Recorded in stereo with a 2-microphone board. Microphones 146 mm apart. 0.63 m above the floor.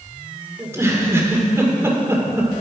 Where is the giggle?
15° right (ahead or behind), 2.5 m.